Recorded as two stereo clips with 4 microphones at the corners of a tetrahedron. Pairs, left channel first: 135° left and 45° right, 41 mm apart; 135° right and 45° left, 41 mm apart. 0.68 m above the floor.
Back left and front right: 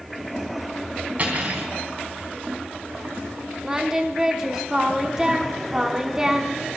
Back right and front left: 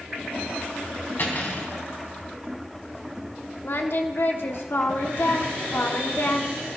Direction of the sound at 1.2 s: 100° right.